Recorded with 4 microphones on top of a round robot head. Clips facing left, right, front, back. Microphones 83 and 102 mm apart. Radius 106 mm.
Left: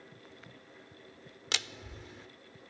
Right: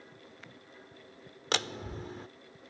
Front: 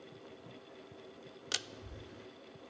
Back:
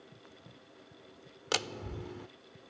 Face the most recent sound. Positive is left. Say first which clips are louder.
# right 7 dB, back 11 dB
turn(degrees=-140)